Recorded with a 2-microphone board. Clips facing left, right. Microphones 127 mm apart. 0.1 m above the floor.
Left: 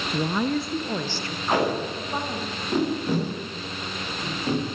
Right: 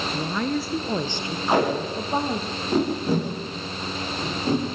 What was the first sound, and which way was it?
A woman speaking, 20° left (ahead or behind).